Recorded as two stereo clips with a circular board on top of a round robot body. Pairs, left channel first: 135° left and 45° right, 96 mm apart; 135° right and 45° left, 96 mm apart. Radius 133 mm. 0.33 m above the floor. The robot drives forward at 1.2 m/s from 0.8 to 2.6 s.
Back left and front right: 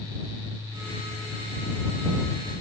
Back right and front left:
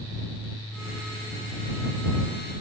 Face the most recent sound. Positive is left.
No sound to turn to.